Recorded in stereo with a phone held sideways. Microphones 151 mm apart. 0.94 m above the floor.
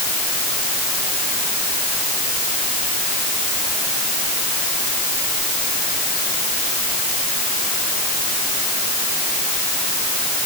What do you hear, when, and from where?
Only background noise.